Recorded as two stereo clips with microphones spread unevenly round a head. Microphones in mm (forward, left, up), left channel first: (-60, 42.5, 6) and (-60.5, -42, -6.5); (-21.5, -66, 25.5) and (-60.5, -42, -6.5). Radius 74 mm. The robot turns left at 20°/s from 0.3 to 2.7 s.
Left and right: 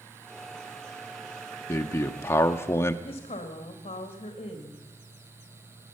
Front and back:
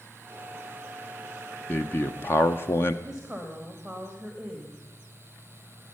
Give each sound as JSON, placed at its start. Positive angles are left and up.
{"t": 1.7, "sound": "a man speaking", "azimuth_deg": 65, "distance_m": 0.6}
{"t": 3.0, "sound": "a woman speaking", "azimuth_deg": 75, "distance_m": 1.6}